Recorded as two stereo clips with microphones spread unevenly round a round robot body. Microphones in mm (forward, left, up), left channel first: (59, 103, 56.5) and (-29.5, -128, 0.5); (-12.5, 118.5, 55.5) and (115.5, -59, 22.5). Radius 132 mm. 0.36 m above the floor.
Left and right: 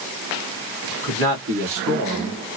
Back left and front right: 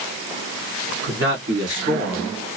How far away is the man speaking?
About 2.5 m.